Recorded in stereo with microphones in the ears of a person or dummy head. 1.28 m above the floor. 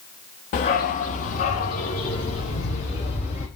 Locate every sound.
0.5 s a dog barking: 40° left (ahead or behind), 0.8 m